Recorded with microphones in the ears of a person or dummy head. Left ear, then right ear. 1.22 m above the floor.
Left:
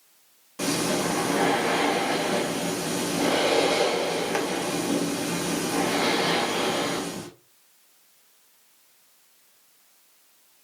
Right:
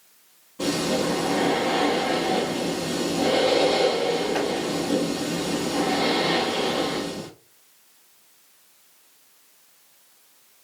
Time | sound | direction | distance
0.6 | breathing | 60° left (ahead or behind) | 1.2 m